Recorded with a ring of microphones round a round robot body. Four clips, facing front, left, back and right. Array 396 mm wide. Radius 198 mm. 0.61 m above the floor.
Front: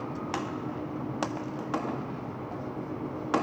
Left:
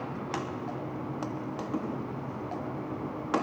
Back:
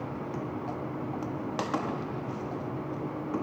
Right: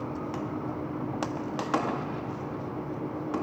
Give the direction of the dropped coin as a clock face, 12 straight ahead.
I don't hear a dropped coin.